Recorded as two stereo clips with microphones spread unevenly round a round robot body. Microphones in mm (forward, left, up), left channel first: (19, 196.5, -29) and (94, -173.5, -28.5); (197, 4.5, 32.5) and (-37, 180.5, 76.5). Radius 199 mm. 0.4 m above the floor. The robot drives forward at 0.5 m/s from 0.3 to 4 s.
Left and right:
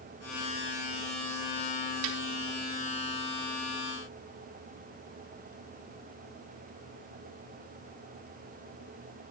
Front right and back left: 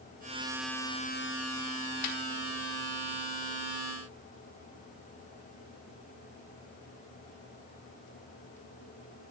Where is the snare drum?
70° right, 4.5 m; by 2.2 s 75° right, 4.5 m.